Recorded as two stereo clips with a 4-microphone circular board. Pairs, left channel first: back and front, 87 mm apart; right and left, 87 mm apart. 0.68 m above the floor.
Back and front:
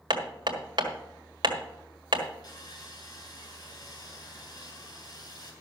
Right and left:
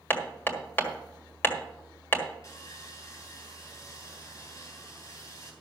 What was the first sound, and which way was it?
Hammering, 25° right.